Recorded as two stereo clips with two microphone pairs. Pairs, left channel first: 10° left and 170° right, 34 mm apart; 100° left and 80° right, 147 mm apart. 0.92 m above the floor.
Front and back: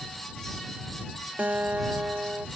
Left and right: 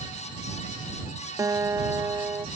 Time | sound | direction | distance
1.4 | a guitar | 145° right | ?